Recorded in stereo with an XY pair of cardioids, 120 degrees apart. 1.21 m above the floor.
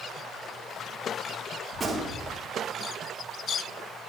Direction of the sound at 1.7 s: 25° right.